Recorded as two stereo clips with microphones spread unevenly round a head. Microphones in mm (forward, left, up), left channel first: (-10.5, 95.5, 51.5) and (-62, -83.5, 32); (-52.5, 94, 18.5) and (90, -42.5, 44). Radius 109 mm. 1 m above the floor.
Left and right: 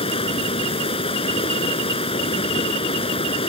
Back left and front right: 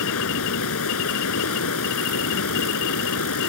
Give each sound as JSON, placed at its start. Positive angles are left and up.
{"t": 0.0, "sound": "running water", "azimuth_deg": 135}